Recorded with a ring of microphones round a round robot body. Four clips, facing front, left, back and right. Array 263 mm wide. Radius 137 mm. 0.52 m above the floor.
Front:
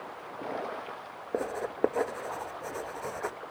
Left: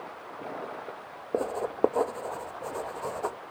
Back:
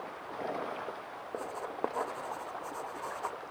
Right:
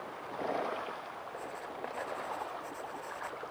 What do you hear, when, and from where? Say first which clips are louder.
1.3 s writing: left 16 dB, front 7 dB; 65° left